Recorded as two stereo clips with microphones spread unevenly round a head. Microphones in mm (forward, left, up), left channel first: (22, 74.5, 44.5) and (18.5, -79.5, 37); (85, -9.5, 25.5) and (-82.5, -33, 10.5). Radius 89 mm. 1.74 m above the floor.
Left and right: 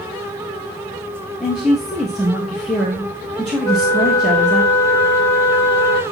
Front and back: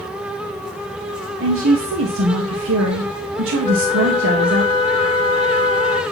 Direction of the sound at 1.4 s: Straight behind.